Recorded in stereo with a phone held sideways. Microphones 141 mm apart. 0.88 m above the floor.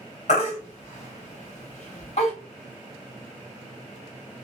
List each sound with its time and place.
0.3 s a baby crying: 60° left (ahead or behind), 2 m